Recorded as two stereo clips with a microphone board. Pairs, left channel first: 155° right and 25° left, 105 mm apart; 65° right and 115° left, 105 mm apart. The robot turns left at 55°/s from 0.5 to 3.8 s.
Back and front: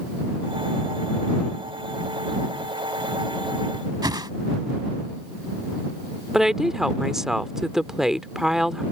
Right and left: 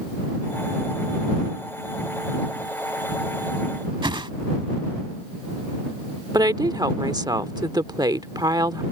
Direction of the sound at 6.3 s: 105° left.